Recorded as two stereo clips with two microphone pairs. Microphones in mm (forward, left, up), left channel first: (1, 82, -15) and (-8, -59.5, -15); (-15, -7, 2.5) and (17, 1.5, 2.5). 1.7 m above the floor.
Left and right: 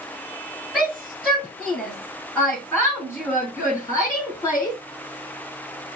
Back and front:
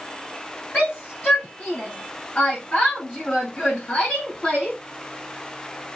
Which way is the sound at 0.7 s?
Straight behind.